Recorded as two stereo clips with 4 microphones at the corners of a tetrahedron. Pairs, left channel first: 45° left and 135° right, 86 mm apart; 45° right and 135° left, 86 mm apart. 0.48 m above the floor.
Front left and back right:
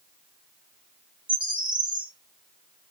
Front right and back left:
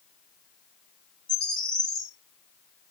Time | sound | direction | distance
1.3 | a bird | 125° right | 1.9 m